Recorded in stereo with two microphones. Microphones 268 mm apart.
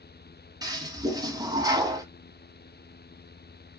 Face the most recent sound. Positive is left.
turn(degrees=-15)  # may be behind; listen again after turning